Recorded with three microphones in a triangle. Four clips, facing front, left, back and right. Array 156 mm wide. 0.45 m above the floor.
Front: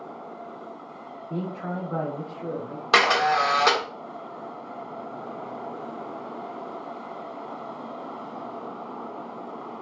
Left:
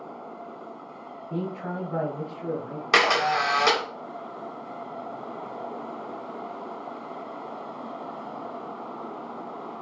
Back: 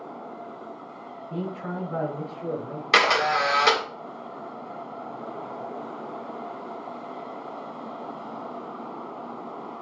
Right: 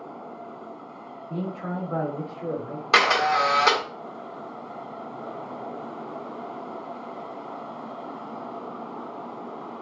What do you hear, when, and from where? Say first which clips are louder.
1.3 s a man speaking: even, front 1 dB; 25° right, 0.8 m; by 2.8 s 100° right, 1.0 m
2.9 s a camera shutter: right 2 dB, front 1 dB; 20° right, 1.0 m